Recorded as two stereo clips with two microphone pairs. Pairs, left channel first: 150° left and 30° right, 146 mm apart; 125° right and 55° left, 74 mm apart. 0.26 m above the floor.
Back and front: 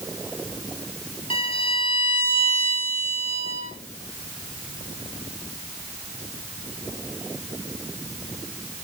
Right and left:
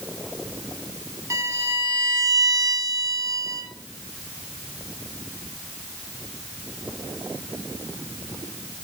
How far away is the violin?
About 3.5 m.